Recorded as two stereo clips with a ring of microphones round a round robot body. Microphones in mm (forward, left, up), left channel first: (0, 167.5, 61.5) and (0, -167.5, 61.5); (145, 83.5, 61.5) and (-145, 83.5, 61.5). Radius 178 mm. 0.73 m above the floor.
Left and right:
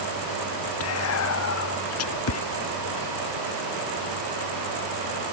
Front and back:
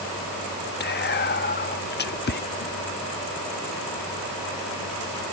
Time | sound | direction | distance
0.8 | whispering | 50° left | ?